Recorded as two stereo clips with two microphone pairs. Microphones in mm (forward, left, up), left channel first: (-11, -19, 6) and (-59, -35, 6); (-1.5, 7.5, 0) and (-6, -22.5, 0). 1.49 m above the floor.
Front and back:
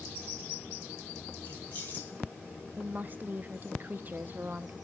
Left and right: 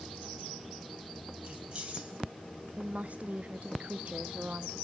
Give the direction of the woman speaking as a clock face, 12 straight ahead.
4 o'clock.